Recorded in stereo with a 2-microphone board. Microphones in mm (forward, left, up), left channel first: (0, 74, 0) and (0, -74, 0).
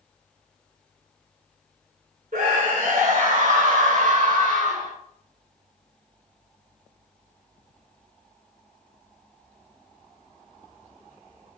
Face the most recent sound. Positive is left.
turn(degrees=-70)  # may be behind; listen again after turning